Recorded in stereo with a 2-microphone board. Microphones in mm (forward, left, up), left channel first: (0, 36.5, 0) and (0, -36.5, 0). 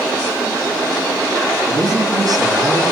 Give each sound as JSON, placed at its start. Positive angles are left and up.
{"t": 1.7, "sound": "a man speaking", "side_deg": -60, "distance_m": 2.5}